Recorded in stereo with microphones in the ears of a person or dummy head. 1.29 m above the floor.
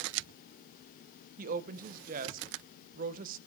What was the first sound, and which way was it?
A woman speaking, 55° right (ahead or behind).